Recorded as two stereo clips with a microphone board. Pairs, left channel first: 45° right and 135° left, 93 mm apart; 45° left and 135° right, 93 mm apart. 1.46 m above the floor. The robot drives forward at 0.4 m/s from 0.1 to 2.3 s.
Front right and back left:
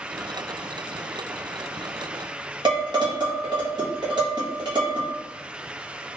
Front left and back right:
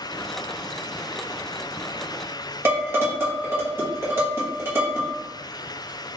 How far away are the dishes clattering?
About 1.1 m.